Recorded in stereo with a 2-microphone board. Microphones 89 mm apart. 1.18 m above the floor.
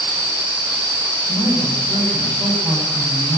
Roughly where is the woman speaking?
Right.